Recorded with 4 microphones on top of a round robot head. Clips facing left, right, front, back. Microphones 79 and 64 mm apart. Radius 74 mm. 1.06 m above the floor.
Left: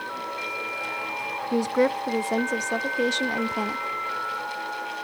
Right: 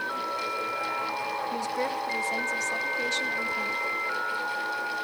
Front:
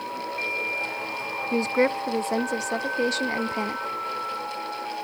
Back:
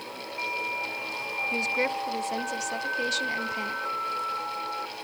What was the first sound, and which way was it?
A woman speaking, 55° left.